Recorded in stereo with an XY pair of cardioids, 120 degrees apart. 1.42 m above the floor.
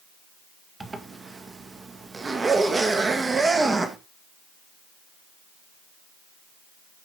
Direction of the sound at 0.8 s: 25° right.